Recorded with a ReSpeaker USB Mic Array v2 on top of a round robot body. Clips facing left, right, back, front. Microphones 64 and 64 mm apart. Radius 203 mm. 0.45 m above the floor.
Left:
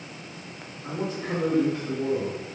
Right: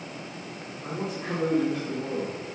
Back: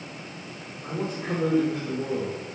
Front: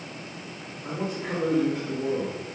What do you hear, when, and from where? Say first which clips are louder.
0.8 s a man speaking: left 2 dB, back 1 dB; 170° right, 4 m